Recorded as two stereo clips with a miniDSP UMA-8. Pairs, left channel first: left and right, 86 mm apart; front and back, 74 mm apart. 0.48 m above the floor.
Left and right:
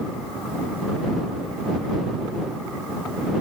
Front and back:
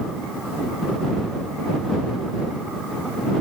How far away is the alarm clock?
I don't hear an alarm clock.